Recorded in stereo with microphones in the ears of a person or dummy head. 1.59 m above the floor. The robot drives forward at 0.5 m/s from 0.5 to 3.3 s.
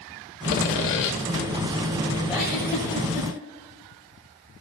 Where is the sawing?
45° left (ahead or behind), 1.1 m.